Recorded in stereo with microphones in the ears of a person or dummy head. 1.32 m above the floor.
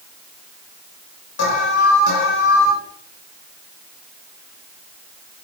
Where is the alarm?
70° left (ahead or behind), 4 m.